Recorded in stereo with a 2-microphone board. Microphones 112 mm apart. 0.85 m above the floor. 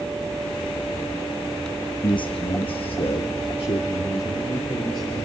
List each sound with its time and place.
2.0 s a man speaking: 45° left (ahead or behind), 0.8 m